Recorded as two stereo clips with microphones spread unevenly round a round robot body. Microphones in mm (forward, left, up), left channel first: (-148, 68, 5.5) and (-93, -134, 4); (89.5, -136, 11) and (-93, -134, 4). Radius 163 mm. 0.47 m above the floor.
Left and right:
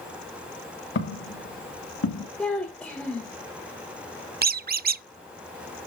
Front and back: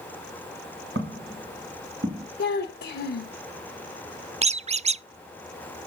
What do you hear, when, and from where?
0.9 s footsteps: 130° left, 4.5 m; by 2.3 s 120° left, 4 m
2.4 s a child speaking: 20° left, 0.8 m
4.4 s a squeak: 125° right, 0.5 m